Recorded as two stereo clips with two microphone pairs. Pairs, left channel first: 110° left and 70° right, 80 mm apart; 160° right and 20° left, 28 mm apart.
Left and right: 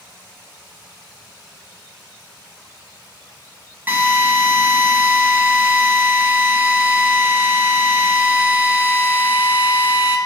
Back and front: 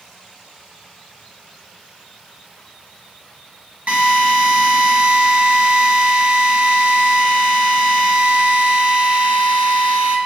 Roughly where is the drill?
Ahead.